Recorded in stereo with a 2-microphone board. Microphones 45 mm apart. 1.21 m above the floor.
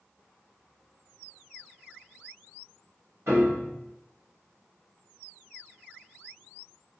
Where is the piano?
70° right (ahead or behind), 1.3 m.